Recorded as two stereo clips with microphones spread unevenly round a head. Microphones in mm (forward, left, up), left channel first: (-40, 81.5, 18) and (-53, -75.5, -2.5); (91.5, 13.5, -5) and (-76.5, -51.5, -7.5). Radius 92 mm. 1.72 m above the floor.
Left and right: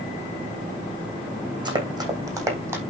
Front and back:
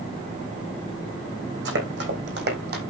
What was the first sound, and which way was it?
Running footsteps, 160° right.